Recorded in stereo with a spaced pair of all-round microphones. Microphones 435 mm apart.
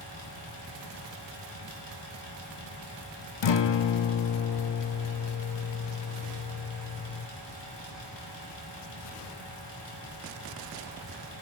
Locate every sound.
0.0 s a fan: 70° left (ahead or behind), 2 m
3.4 s a guitar: 75° left (ahead or behind), 0.5 m